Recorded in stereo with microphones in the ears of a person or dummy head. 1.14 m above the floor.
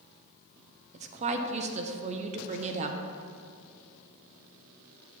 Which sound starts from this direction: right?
A woman speaking, at 0.9 s.